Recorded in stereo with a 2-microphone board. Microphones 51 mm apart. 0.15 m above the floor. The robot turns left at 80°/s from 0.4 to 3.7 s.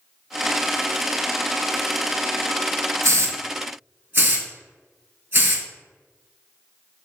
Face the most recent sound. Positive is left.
turn(degrees=-45)  # may be behind; listen again after turning